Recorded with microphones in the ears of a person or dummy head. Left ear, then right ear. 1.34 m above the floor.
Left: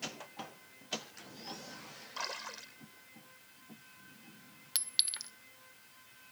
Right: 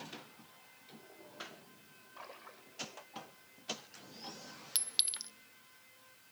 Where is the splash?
75° left (ahead or behind).